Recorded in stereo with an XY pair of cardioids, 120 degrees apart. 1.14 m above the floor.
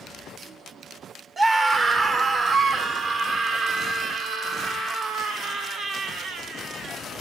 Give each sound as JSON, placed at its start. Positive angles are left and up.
{"t": 1.4, "sound": "a scream", "azimuth_deg": -25, "distance_m": 1.2}